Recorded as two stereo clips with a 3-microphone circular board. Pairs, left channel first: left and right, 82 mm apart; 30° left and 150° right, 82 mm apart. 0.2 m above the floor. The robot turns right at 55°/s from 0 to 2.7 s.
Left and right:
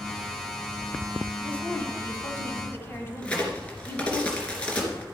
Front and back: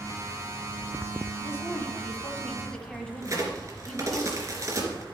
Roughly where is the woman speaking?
Ahead left.